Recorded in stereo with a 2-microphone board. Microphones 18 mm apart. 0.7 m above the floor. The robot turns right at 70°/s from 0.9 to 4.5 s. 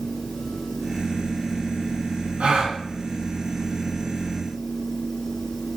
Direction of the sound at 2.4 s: 70° right (ahead or behind).